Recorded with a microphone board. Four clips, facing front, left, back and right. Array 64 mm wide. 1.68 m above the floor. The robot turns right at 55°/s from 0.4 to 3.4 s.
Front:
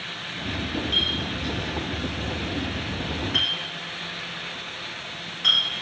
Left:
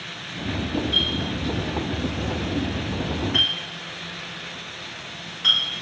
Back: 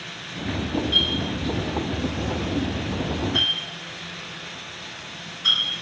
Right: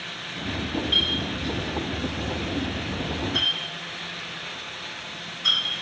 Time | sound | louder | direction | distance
0.9 | a clink | left 1 dB, back 3 dB | 95° right | 4.5 m